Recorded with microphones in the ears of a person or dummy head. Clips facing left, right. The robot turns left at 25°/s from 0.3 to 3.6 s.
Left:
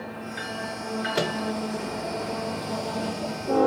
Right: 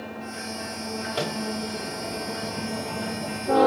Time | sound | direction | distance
1.1 | a microwave | 30° left (ahead or behind) | 2 m